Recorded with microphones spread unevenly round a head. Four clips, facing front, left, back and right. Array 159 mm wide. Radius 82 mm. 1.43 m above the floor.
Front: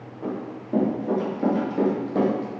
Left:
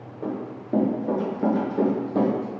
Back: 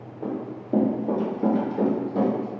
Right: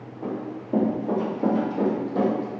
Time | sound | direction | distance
0.2 | running footsteps | 150° left | 1.6 m